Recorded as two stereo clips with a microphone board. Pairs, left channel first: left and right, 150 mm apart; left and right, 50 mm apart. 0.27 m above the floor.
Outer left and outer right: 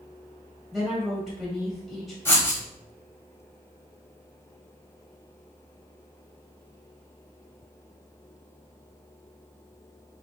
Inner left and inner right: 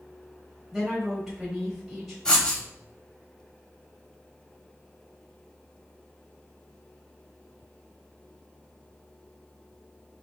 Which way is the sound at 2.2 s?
15° left (ahead or behind).